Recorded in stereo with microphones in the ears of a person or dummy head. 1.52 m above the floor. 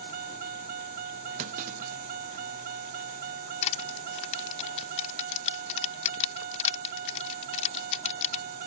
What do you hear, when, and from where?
0.0 s a vehicle: 55° right (ahead or behind)
1.4 s a clunk: 45° right (ahead or behind)
3.6 s crushing: 40° left (ahead or behind)